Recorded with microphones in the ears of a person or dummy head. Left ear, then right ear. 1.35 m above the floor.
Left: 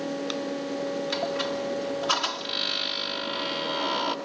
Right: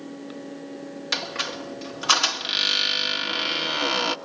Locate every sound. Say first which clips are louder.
1.1 s a squeak: right 5 dB; 45° right (ahead or behind), 1.8 m